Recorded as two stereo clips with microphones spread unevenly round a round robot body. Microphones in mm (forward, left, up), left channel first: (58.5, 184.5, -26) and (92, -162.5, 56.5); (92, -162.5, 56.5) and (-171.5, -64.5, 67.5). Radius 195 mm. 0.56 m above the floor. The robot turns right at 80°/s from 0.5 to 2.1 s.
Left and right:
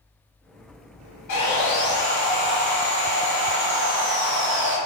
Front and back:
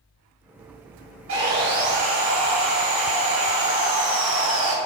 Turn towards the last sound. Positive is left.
turn(degrees=-175)